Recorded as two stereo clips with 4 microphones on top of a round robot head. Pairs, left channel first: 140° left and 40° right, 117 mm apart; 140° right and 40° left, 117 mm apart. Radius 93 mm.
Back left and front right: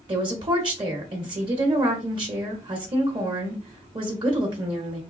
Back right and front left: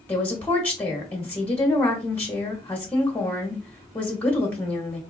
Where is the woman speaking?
70° right, 1.0 m.